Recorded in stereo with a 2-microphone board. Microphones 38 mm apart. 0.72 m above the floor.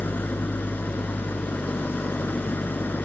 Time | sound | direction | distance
0.0 | an engine running | 55° left (ahead or behind) | ?